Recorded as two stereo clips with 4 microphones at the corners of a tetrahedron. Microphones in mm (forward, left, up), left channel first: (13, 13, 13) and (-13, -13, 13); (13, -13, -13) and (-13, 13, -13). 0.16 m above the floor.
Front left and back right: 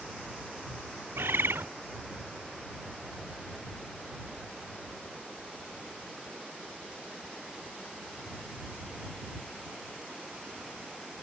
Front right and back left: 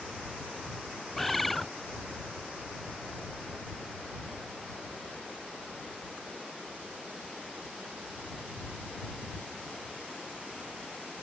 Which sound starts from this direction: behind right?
A bird, at 1.2 s.